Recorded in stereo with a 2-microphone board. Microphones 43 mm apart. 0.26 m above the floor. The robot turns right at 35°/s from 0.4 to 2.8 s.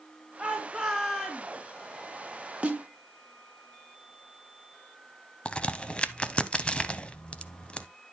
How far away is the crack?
About 0.6 m.